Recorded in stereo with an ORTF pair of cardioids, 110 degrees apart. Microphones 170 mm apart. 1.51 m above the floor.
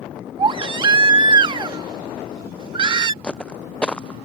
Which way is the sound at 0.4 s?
30° right.